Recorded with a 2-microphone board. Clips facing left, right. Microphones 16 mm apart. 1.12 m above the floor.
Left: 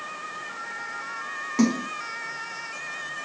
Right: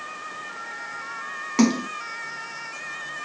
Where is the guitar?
I don't hear a guitar.